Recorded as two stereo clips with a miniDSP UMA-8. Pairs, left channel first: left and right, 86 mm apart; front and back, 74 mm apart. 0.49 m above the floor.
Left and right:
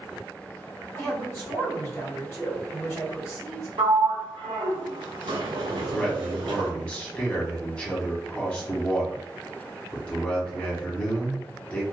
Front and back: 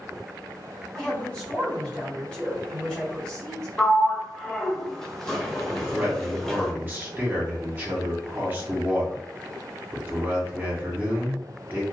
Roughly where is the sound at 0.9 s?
Left.